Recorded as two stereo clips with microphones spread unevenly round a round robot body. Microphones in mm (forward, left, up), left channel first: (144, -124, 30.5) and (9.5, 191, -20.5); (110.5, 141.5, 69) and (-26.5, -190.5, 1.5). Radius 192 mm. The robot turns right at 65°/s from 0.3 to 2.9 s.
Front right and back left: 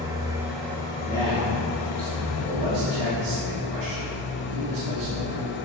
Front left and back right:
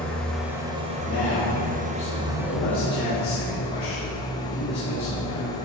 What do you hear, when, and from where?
0.0 s an engine running: 170° left, 0.8 m; by 5.7 s 20° right, 0.8 m
1.0 s a man speaking: 10° left, 2.5 m; by 5.6 s 130° left, 2.5 m